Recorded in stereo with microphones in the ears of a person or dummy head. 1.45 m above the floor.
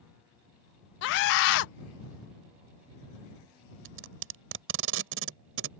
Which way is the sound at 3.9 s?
75° right (ahead or behind).